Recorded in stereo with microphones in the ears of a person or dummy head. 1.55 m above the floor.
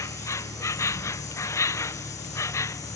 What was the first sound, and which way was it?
An insect, 15° left (ahead or behind).